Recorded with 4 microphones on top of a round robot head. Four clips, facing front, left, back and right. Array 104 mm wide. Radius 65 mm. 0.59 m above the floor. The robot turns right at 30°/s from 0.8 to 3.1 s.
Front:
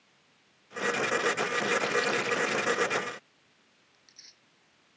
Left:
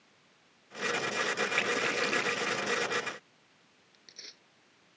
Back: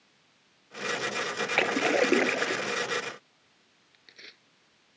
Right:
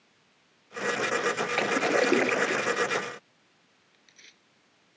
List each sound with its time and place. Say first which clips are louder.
1.6 s a splash: right 7 dB, back 3 dB; 150° right; by 2.7 s 115° right
3.9 s tearing paper: left 3 dB, back 14 dB; 150° left